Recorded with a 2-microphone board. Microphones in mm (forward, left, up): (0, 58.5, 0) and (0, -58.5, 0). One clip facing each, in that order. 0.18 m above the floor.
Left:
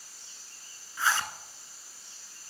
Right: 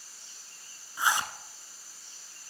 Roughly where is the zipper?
Centre.